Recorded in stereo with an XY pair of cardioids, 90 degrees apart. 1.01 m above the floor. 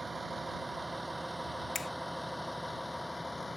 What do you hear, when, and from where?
0.0 s a vehicle: 20° right; by 3.6 s 20° left
1.8 s a finger snap: 55° left